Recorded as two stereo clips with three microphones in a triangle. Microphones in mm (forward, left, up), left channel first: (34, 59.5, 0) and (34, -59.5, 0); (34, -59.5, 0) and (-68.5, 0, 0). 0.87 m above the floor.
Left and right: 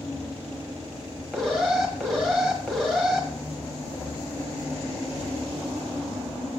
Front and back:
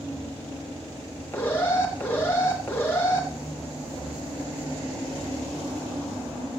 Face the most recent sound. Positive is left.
turn(degrees=10)